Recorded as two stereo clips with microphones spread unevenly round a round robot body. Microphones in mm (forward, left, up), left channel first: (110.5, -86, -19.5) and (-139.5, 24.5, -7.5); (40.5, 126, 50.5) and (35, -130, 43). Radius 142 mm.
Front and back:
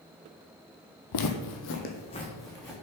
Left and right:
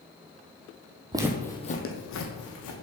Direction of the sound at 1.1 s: 20° right.